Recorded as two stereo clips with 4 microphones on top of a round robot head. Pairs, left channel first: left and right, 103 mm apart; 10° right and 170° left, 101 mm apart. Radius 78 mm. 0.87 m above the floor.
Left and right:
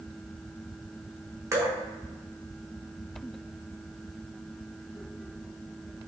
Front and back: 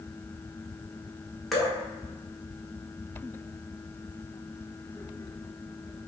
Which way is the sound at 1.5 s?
95° right.